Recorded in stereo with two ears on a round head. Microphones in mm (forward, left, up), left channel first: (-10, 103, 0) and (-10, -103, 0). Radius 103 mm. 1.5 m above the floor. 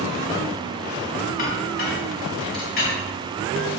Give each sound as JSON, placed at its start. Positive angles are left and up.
{"t": 1.4, "sound": "a clink", "side_deg": 45, "distance_m": 3.0}